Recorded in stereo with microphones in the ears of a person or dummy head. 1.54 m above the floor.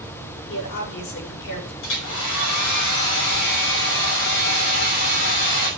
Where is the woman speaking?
60° left (ahead or behind), 4.5 m.